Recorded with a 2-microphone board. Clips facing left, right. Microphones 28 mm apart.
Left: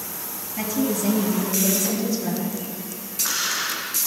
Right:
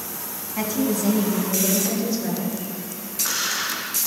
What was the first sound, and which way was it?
A woman speaking, 55° right (ahead or behind).